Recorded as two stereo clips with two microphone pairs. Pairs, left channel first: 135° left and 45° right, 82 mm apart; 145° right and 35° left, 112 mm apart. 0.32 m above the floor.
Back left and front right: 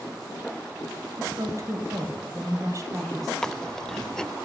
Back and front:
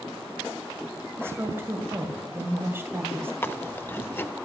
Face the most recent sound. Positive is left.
turn(degrees=-170)